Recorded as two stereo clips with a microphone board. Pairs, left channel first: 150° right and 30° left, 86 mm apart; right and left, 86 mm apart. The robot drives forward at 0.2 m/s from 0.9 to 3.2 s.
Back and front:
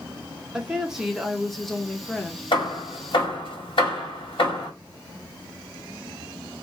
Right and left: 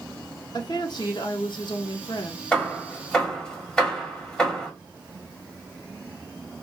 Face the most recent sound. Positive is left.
turn(degrees=-170)